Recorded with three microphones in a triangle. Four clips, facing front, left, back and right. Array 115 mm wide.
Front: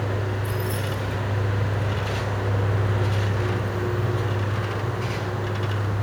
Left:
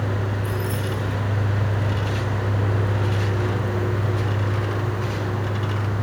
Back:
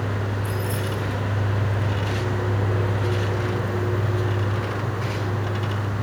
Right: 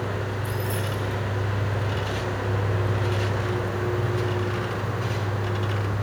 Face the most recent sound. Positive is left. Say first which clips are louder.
# left 2 dB, back 1 dB
turn(degrees=165)